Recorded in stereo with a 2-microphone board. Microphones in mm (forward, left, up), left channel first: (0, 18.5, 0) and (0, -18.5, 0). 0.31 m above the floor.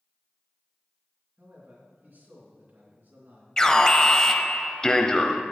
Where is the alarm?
20° left (ahead or behind), 0.8 m.